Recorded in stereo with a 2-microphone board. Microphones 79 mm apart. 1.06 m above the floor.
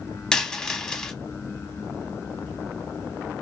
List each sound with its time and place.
0.3 s a dropped coin: 10° left (ahead or behind), 0.8 m